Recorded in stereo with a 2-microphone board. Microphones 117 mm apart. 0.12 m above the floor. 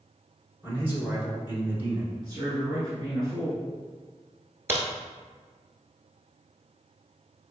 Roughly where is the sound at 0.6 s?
Centre.